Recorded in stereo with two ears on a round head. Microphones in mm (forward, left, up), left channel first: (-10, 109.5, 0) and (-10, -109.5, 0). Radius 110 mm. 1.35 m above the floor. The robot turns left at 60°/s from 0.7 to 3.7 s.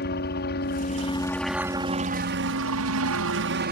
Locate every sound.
0.0 s a helicopter: 45° left; by 3.7 s 135° right